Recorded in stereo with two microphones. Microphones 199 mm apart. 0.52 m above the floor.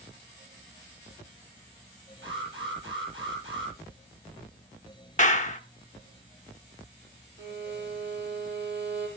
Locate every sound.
2.2 s an alarm: 70° right (ahead or behind), 10 m
5.2 s a clap: 35° left (ahead or behind), 1.1 m
7.4 s a violin: 60° right (ahead or behind), 9.5 m